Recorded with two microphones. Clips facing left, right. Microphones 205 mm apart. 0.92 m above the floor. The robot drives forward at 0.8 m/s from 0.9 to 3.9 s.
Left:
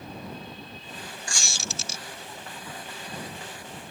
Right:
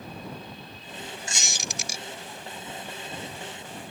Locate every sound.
1.3 s a squeak: 20° right (ahead or behind); by 2.0 s 10° right (ahead or behind)